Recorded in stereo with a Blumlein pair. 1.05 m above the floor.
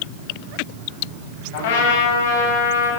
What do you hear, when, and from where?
1.5 s a trumpet: 60° left, 6.5 m